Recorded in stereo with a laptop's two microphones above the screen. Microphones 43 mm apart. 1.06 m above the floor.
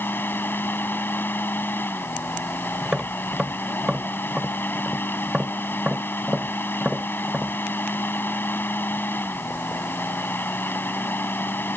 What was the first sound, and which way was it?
A fan, 60° left (ahead or behind).